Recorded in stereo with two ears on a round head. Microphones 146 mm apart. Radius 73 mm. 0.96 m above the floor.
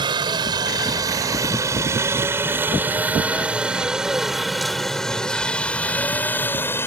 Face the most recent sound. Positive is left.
turn(degrees=15)  # may be behind; listen again after turning